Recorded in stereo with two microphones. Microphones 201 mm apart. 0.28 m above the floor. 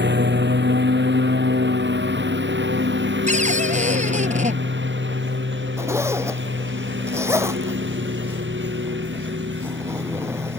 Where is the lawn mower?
60° right (ahead or behind); by 10.6 s 70° right (ahead or behind).